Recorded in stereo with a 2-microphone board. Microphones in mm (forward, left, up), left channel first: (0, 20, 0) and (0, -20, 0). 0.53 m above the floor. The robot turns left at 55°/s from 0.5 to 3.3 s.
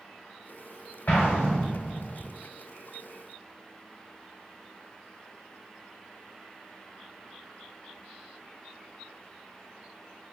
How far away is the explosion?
About 1.3 m.